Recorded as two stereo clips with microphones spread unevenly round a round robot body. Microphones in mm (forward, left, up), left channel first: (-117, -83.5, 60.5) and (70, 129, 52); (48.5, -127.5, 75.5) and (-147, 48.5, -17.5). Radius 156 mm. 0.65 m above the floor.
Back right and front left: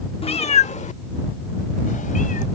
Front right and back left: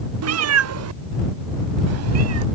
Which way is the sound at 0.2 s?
155° left.